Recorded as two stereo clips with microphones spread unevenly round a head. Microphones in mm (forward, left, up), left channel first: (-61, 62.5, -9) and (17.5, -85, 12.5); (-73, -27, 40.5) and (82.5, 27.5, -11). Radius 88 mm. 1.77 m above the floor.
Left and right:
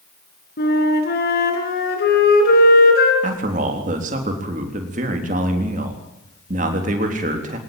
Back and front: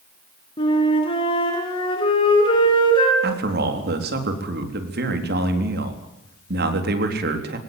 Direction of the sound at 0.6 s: 145° left.